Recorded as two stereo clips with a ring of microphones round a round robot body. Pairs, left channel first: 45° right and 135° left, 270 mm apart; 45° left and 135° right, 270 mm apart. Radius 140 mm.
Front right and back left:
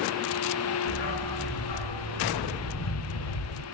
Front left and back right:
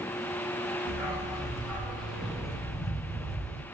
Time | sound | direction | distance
0.9 | a dog barking | 45° right | 3.5 m